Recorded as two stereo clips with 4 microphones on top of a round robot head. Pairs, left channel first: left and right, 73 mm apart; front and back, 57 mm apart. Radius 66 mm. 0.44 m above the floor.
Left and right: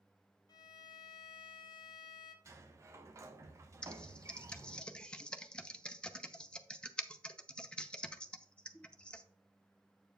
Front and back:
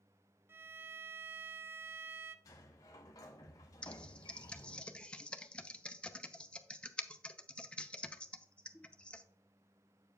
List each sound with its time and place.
0.5 s a violin: 130° left, 0.6 m
2.5 s a sliding door: 40° right, 0.7 m
3.8 s typing on a keyboard: 35° left, 0.7 m